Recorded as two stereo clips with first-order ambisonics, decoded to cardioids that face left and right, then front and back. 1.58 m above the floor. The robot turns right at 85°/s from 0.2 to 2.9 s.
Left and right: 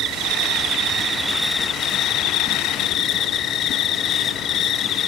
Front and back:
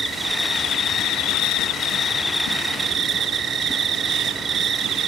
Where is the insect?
105° right, 0.8 m; by 5.1 s 125° left, 0.8 m.